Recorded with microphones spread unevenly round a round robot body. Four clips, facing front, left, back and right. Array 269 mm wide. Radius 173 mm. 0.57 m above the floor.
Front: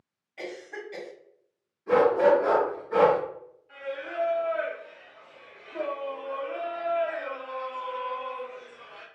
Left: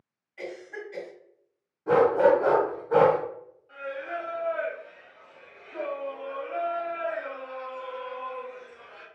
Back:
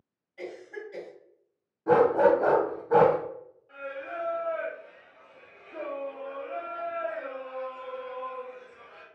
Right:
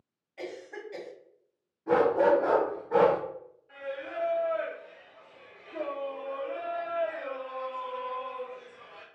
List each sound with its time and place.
0.4 s a cough: 10° right, 1.9 m
1.9 s a dog barking: 155° left, 0.5 m
3.7 s singing: 160° right, 1.1 m